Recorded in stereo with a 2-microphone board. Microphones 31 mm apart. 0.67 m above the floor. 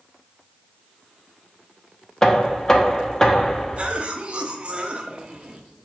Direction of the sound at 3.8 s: 35° right (ahead or behind).